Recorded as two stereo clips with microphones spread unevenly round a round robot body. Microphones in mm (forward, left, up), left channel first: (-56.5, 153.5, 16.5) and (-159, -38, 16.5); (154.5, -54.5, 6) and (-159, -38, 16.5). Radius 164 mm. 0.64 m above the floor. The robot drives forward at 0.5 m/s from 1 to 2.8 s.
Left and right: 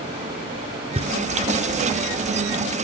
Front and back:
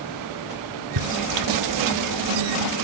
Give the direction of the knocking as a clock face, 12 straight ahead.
6 o'clock.